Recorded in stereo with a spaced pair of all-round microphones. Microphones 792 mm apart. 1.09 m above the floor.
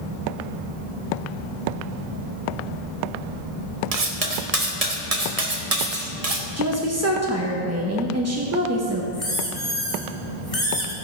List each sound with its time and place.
3.9 s cutlery clinking: 50° right (ahead or behind), 1.1 m
6.6 s a woman speaking: 20° right (ahead or behind), 1.2 m
9.1 s a squeak: 30° left (ahead or behind), 2 m